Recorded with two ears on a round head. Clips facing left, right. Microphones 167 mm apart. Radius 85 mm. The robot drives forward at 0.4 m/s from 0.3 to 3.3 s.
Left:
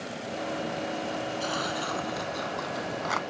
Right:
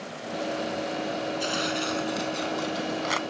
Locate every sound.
1.4 s tearing paper: 25° right (ahead or behind); by 3.2 s 35° right (ahead or behind)